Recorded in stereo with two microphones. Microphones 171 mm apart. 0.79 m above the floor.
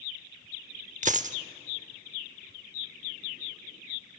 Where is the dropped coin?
45° right (ahead or behind), 0.7 m.